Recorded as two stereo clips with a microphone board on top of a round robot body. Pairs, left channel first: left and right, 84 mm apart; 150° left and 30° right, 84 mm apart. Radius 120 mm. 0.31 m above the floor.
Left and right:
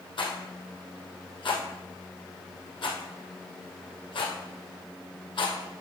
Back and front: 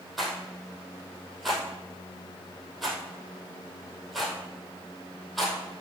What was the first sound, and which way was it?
A rattle, 60° left.